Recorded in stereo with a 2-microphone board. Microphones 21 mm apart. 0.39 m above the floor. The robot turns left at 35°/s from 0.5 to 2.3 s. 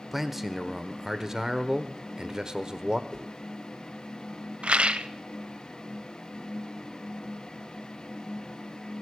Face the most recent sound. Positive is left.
turn(degrees=-75)  # may be behind; listen again after turning